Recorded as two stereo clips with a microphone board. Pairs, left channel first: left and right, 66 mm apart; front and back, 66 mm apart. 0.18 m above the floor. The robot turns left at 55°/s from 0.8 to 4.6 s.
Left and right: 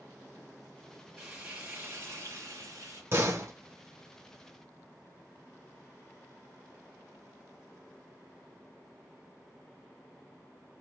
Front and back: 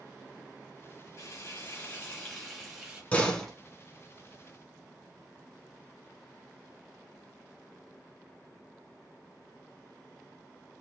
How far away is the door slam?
About 1.2 m.